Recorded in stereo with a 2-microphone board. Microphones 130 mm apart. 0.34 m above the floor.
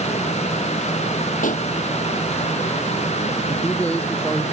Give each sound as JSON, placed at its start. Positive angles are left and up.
{"t": 1.4, "sound": "a pop", "side_deg": 85}
{"t": 3.5, "sound": "a man speaking", "side_deg": 10}